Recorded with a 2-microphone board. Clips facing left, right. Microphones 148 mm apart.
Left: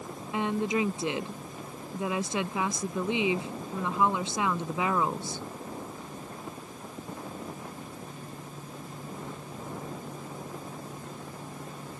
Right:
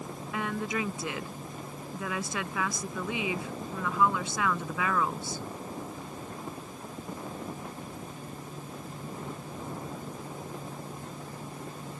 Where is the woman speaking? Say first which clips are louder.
Left 5 dB; 25° left (ahead or behind).